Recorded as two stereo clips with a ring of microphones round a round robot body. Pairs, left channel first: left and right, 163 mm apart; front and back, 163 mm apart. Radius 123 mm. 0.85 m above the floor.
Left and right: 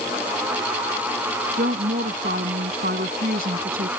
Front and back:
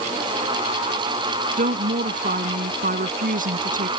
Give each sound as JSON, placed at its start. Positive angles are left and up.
{"t": 1.6, "sound": "a woman speaking", "azimuth_deg": -145}